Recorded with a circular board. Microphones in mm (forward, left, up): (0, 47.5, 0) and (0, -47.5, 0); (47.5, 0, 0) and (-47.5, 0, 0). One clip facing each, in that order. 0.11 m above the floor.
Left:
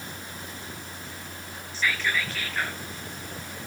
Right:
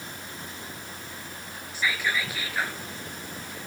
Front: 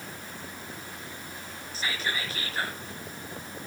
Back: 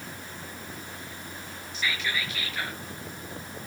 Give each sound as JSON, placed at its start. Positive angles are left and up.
{"t": 1.7, "sound": "whispering", "azimuth_deg": -15, "distance_m": 2.0}